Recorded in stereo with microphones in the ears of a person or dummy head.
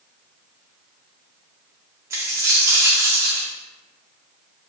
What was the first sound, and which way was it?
A dropped coin, 15° right (ahead or behind).